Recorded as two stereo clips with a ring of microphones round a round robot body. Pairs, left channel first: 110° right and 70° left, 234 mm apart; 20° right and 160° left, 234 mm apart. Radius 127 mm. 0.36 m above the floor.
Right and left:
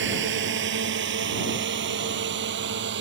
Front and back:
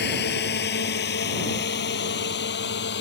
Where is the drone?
25° left.